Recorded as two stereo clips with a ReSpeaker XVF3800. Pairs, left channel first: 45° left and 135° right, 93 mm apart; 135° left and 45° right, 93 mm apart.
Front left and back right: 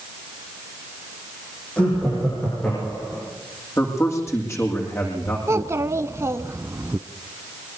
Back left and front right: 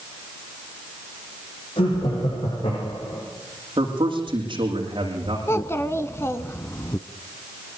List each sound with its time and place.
1.8 s laughter: 120° left, 9.5 m; by 3.2 s 125° left, 9.5 m
3.8 s a man speaking: 15° right, 8.5 m
5.5 s a child speaking: straight behind, 0.8 m